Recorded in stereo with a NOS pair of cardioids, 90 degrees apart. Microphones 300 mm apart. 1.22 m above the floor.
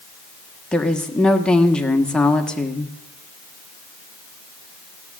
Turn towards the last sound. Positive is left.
turn(degrees=5)